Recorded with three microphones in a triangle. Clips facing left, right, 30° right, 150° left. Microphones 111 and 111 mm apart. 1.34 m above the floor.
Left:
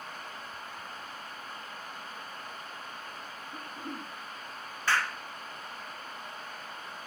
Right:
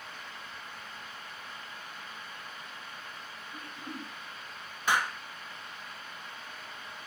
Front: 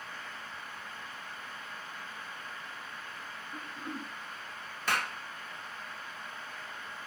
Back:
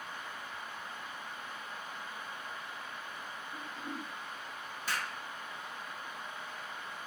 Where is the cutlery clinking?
No cutlery clinking in this recording.